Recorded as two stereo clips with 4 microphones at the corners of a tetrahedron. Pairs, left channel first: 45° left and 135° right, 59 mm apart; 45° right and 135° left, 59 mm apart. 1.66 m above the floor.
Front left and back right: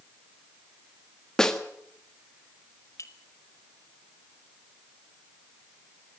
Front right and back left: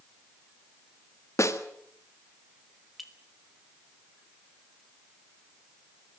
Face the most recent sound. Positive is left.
turn(degrees=50)